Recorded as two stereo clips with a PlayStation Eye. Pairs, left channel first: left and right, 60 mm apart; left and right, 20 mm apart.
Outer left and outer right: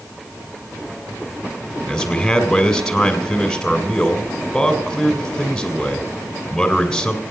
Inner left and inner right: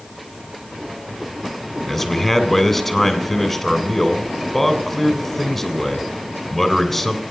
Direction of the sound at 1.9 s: 10° left (ahead or behind).